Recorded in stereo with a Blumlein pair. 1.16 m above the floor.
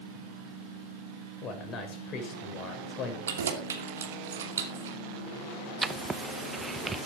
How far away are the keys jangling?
About 2.5 m.